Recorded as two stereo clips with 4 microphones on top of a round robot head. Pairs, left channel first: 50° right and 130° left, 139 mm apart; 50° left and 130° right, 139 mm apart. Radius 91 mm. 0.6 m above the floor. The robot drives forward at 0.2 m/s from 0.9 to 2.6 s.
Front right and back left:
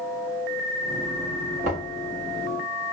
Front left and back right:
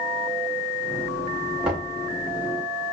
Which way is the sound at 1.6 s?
145° left.